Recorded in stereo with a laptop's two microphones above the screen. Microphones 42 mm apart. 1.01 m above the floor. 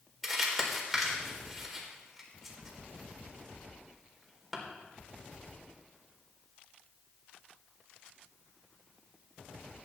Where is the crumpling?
5° right (ahead or behind), 4 m.